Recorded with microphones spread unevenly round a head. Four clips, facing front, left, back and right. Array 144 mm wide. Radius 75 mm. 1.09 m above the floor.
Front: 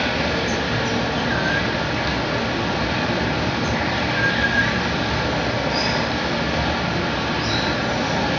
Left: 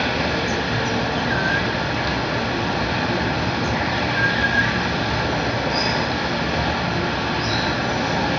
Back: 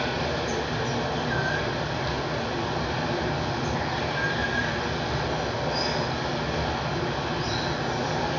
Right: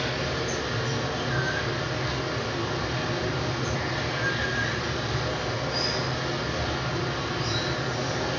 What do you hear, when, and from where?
0.0 s running water: 35° left, 1.5 m